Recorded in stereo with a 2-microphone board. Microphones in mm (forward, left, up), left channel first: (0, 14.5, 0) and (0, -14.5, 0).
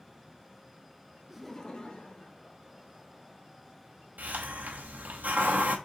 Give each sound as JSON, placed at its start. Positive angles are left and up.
{"t": 1.3, "sound": "laughter", "side_deg": -15, "distance_m": 0.8}
{"t": 4.2, "sound": "a hiss", "side_deg": -75, "distance_m": 0.8}